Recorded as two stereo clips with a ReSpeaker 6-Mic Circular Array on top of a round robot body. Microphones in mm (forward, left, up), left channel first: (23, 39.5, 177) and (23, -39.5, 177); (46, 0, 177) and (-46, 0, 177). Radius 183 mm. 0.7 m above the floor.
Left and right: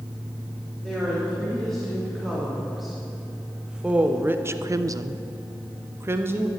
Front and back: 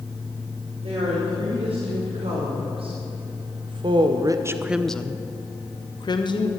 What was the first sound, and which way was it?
A woman speaking, 175° left.